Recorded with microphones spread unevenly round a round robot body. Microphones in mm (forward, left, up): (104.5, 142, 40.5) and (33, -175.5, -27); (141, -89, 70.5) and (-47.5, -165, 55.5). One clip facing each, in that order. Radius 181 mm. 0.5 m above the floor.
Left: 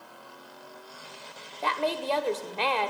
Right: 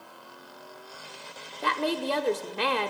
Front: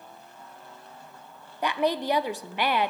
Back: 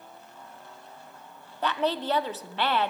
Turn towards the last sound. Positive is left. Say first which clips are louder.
# right 2 dB, front 2 dB
turn(degrees=-55)